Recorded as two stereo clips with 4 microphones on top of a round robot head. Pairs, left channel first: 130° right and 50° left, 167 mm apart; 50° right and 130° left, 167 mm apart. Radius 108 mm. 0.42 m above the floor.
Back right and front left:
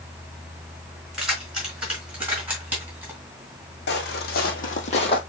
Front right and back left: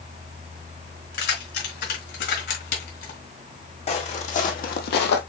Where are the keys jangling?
40° right, 4 m; by 3.2 s 30° right, 3 m.